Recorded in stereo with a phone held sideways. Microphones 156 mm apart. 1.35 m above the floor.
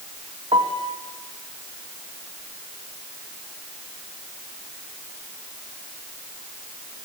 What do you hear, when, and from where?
0.5 s a piano: 35° right (ahead or behind), 2.5 m